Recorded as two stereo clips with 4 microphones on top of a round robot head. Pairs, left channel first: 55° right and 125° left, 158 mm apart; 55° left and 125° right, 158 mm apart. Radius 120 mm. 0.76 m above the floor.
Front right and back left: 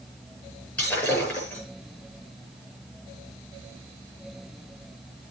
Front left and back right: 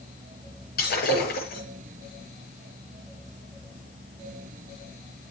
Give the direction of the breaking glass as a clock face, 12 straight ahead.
11 o'clock.